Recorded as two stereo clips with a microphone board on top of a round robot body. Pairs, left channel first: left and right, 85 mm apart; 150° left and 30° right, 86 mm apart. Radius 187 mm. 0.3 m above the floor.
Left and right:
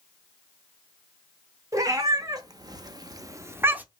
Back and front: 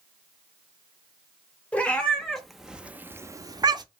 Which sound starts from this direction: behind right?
A cat meowing, at 1.7 s.